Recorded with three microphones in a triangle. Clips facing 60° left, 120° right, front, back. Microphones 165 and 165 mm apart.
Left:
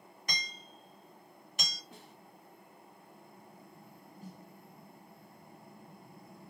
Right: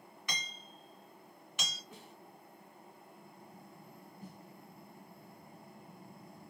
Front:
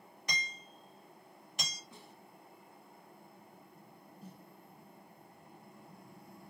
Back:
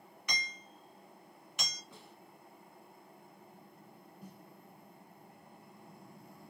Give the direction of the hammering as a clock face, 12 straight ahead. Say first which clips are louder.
Left 1 dB, even; 11 o'clock.